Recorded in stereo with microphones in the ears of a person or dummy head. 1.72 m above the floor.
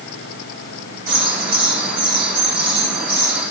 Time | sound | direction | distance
1.1 | a bird | 55° right (ahead or behind) | 4 m